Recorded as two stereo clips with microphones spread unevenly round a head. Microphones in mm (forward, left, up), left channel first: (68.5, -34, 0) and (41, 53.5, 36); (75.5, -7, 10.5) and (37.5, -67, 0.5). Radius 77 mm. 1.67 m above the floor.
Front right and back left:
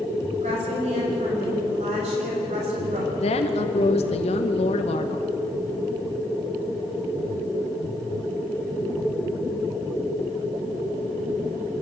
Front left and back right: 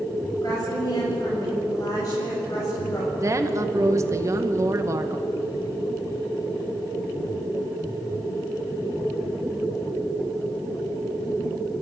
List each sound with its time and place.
0.4 s a woman speaking: 125° left, 8 m
3.2 s a woman speaking: 75° right, 2.0 m